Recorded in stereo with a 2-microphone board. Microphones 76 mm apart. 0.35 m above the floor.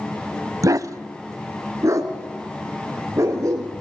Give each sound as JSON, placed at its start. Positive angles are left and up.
{"t": 0.6, "sound": "a dog barking", "side_deg": -50, "distance_m": 0.5}